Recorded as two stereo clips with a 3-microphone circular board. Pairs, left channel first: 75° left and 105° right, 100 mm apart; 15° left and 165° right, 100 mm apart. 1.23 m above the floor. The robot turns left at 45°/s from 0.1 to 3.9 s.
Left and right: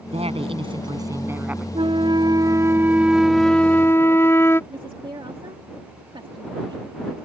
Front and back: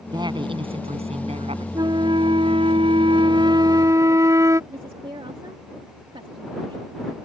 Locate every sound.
0.1 s a woman speaking: 115° right; by 1.6 s 175° left
1.8 s a flute: 125° right; by 4.6 s 140° left
4.7 s a woman speaking: 140° right